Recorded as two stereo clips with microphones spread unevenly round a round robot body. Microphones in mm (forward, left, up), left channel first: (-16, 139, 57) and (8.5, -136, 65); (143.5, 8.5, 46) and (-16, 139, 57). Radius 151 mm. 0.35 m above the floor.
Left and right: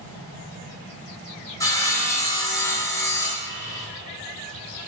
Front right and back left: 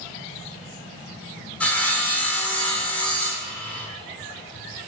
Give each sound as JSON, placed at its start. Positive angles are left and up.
{"t": 1.6, "sound": "sawing", "azimuth_deg": 30, "distance_m": 0.7}